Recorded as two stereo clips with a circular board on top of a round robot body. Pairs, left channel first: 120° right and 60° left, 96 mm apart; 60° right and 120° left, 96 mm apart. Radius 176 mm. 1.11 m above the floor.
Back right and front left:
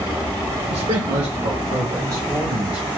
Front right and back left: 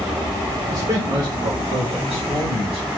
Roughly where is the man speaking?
Left.